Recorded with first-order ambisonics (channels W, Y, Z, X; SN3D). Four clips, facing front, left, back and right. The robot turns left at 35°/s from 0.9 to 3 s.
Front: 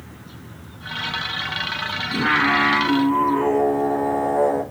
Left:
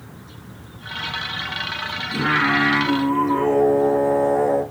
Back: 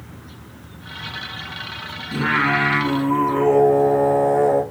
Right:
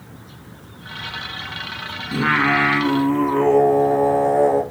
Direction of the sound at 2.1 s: 90° right.